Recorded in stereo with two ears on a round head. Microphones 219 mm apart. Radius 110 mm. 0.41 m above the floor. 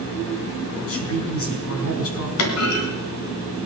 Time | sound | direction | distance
0.8 | a woman speaking | 60° left (ahead or behind) | 4.5 m
2.4 | a clunk | 65° left (ahead or behind) | 3 m